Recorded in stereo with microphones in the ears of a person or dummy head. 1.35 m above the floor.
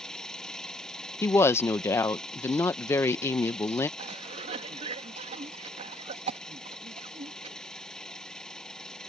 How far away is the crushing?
I don't hear crushing.